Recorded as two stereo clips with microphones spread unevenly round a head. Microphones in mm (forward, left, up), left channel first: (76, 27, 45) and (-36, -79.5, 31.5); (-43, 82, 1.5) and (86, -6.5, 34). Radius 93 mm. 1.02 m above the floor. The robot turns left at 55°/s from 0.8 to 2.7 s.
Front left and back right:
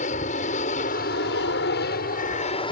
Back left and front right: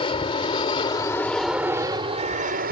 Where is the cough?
No cough in this recording.